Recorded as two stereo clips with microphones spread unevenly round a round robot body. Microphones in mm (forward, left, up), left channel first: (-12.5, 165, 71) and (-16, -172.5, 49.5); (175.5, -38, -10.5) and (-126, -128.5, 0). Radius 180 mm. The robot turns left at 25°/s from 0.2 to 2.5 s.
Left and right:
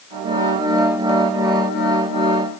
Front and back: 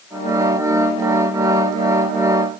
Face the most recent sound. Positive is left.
No sound to turn to.